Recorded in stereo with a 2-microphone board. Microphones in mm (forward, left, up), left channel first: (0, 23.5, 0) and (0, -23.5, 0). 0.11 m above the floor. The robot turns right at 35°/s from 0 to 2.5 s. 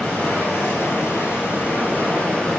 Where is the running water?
60° left, 1.2 m; by 2.6 s 150° left, 1.2 m.